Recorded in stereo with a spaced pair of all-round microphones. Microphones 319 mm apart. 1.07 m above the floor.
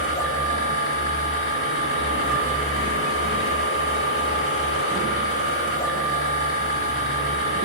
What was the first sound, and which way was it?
A machine running, 45° left (ahead or behind).